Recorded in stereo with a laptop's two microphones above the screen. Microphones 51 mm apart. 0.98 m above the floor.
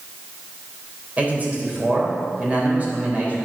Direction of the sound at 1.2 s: 30° right (ahead or behind).